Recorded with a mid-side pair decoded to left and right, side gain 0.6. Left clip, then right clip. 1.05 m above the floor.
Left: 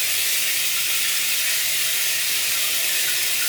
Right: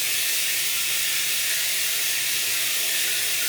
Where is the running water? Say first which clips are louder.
Left 2 dB; 25° left, 2.5 m.